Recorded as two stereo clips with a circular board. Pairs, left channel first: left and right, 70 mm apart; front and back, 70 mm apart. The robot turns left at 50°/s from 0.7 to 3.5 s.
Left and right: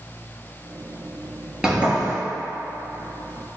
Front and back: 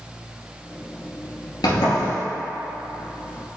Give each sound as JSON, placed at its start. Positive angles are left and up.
{"t": 1.6, "sound": "a sliding door", "azimuth_deg": -5, "distance_m": 1.3}